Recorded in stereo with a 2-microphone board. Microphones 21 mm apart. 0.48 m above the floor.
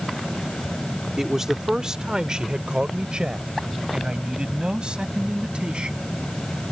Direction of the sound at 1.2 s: 15° right (ahead or behind).